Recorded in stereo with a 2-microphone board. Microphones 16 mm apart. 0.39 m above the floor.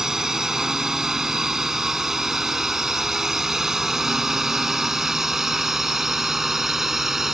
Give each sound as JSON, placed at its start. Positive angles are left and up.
{"t": 0.0, "sound": "a drone", "side_deg": -30}